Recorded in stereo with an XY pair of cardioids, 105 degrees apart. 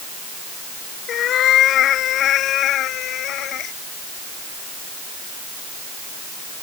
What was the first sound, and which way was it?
A cat meowing, 65° left.